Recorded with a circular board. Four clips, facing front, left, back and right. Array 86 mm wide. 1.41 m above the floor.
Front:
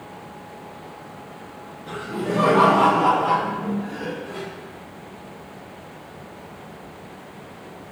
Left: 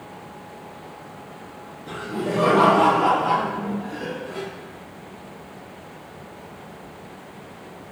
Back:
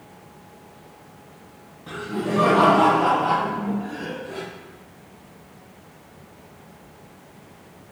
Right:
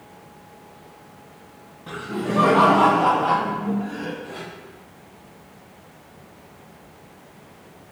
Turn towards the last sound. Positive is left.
turn(degrees=-105)